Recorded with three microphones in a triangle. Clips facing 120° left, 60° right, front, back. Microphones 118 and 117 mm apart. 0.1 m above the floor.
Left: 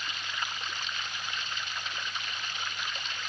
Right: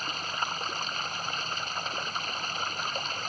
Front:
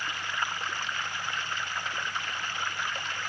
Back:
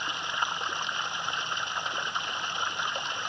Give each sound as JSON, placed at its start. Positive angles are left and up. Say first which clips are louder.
{"t": 0.0, "sound": "running water", "louder": "right 4 dB, back 1 dB", "azimuth_deg": -110}